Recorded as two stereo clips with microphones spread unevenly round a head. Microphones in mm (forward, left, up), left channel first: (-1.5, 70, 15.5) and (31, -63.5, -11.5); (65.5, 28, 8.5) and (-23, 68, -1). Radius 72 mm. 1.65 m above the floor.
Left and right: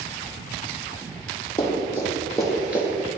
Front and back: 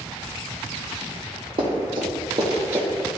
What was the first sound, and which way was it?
Running footsteps, 155° left.